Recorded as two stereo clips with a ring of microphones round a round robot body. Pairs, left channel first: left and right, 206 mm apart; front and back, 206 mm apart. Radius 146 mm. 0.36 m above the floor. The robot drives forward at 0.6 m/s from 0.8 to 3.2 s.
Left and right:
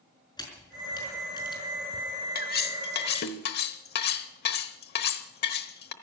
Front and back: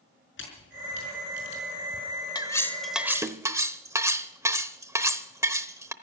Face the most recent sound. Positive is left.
turn(degrees=105)